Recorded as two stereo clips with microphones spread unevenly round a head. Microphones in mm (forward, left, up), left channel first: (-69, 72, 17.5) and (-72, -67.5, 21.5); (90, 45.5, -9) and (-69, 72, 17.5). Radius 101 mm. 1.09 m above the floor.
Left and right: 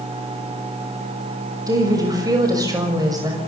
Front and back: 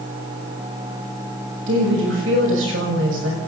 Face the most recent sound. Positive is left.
turn(degrees=-155)